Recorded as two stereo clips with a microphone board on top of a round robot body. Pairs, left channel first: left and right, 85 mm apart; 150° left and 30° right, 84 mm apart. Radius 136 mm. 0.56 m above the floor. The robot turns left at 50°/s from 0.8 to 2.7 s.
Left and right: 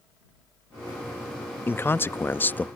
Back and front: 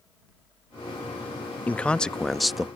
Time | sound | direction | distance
1.7 | a man speaking | 100° left | ?